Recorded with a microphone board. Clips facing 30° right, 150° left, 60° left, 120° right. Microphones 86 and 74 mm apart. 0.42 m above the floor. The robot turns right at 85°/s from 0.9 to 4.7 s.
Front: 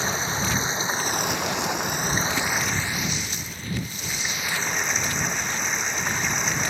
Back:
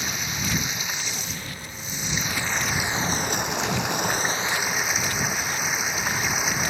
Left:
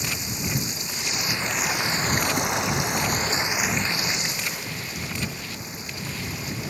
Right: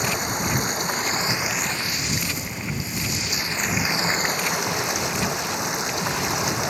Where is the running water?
90° right; by 6.7 s 125° right.